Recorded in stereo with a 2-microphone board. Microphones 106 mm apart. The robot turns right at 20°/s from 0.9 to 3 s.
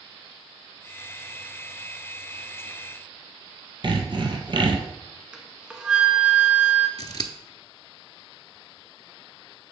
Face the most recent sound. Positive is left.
turn(degrees=40)  # may be behind; listen again after turning